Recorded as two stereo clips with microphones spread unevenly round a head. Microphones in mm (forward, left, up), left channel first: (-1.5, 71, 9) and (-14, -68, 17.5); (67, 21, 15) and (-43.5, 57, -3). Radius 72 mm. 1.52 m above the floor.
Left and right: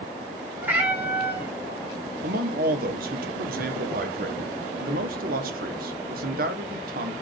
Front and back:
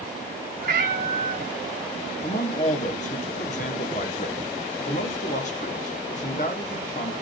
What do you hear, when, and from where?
0.6 s a cat meowing: 170° right, 3 m
2.2 s a man speaking: 65° right, 1.5 m